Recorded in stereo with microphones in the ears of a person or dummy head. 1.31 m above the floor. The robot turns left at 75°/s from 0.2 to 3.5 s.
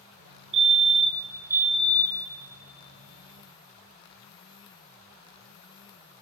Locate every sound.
0.5 s a fire alarm: 80° right, 0.8 m; by 2.3 s 150° left, 0.8 m